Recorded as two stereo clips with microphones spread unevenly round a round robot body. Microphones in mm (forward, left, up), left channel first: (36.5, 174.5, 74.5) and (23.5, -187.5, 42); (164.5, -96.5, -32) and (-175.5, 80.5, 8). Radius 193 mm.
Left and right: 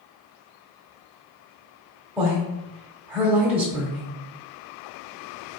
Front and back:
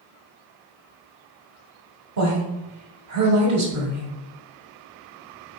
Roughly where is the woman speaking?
Behind.